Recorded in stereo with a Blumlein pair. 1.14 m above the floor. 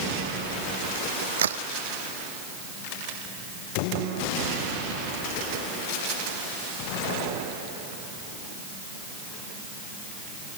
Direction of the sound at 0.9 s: 65° right.